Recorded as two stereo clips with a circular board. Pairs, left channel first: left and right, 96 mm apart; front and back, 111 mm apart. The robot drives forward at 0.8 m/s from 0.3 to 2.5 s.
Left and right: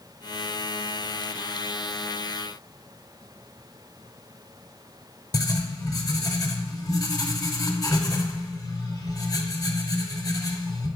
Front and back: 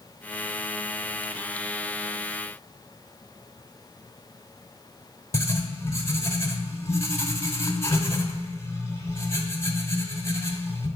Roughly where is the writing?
Ahead left.